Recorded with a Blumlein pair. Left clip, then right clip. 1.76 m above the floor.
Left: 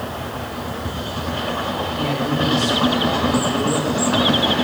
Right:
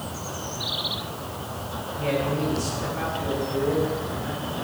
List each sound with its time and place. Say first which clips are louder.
2.0 s a man speaking: left 1 dB; 65° left, 5.5 m